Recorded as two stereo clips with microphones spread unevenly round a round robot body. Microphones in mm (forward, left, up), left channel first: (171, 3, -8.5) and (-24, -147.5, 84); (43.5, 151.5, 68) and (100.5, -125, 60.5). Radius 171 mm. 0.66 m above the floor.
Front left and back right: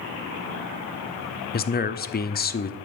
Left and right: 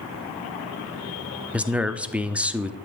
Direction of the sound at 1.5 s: 5° left.